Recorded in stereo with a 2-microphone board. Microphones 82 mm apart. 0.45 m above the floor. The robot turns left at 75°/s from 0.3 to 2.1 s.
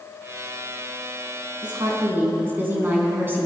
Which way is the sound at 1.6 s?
120° right.